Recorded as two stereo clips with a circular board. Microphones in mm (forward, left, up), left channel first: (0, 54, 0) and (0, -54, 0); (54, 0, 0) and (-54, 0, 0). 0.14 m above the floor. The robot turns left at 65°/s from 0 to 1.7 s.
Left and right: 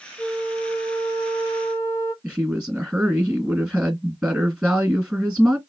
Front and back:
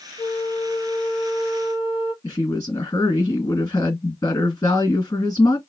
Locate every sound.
0.2 s a flute: 25° right, 1.7 m; by 2.1 s 125° right, 1.7 m
2.2 s a woman speaking: 30° right, 1.7 m